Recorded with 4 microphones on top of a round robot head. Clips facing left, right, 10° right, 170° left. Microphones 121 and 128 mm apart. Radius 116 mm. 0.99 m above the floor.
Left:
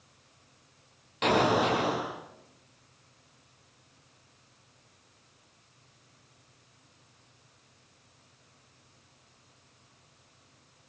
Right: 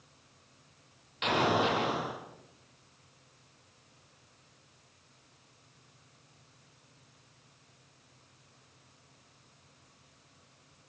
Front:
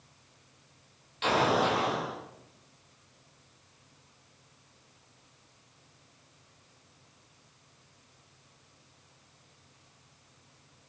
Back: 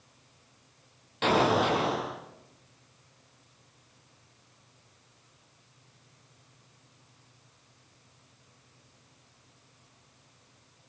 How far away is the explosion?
About 9 m.